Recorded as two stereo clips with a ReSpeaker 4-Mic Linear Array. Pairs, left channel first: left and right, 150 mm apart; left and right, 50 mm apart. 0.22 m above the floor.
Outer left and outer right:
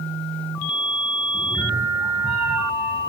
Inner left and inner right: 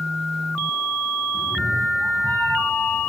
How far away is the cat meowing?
About 4 m.